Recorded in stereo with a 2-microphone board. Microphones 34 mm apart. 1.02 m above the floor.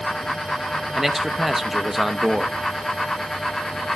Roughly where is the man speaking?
Centre.